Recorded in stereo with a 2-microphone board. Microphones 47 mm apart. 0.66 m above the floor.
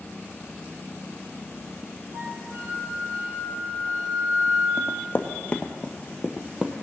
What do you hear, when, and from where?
2.1 s a flute: 65° right (ahead or behind), 2.0 m
4.8 s running footsteps: 50° left (ahead or behind), 1.0 m; by 6.8 s 25° right (ahead or behind), 0.9 m